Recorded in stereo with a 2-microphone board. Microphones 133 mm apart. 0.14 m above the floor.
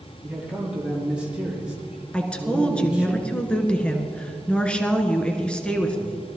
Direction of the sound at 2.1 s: 10° left (ahead or behind).